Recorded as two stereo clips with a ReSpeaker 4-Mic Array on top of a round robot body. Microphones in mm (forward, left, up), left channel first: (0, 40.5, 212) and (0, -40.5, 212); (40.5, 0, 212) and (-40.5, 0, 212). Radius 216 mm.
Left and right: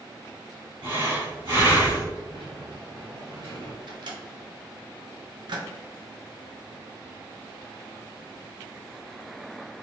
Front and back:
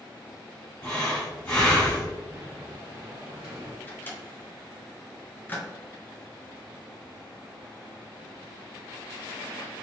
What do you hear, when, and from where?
0.8 s breathing: 60° right, 1.8 m
2.3 s a sliding door: 120° right, 0.5 m
3.9 s a microwave: 65° right, 1.0 m